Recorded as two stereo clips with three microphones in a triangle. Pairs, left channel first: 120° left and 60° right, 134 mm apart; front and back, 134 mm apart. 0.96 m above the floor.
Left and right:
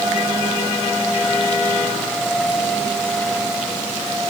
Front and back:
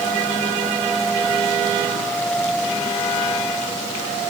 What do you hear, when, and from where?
Only background noise.